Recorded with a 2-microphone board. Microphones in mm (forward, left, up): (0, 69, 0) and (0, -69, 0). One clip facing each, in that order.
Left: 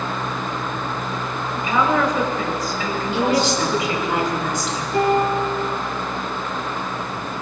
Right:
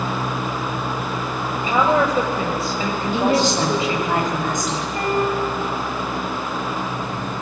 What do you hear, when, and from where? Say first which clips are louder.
1.6 s a woman speaking: right 2 dB; 25° right (ahead or behind), 4.5 m
3.1 s a woman speaking: right 1 dB; 45° right (ahead or behind), 7 m
4.9 s a piano: left 4 dB; 75° left (ahead or behind), 6 m